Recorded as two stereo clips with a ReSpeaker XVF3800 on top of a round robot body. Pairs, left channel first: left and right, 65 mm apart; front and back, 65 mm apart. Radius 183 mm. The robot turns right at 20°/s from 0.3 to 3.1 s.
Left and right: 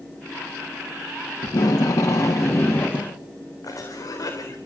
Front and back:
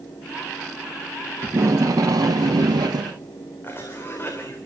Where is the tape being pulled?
125° left, 1.4 m; by 3.1 s 160° left, 1.4 m.